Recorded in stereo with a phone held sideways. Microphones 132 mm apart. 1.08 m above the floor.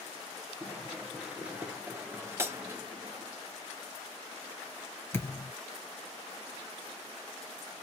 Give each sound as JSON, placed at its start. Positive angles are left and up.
{"t": 0.6, "sound": "running footsteps", "side_deg": 0, "distance_m": 1.3}
{"t": 2.4, "sound": "breaking glass", "side_deg": -20, "distance_m": 0.9}
{"t": 5.1, "sound": "a thud", "side_deg": 20, "distance_m": 1.2}